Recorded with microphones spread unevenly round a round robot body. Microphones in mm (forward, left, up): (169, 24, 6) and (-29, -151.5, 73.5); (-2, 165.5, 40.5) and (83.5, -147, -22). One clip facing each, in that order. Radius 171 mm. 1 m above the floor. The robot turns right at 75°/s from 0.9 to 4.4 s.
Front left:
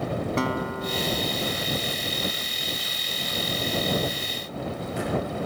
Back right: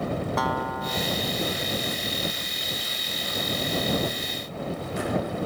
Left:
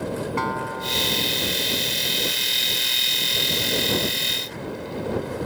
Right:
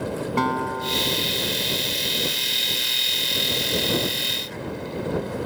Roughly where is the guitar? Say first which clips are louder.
Front left 2 dB, right 4 dB; ahead right.